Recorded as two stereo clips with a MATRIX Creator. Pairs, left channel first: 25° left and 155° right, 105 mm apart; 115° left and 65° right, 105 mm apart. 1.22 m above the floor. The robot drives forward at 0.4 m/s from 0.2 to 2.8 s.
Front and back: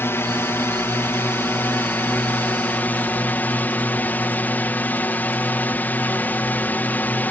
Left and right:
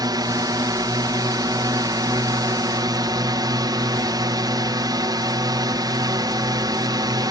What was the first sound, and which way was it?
A drone, 40° right.